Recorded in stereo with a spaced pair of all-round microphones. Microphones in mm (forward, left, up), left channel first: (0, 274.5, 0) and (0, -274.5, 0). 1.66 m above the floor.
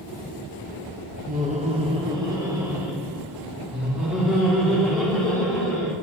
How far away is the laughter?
About 1.0 m.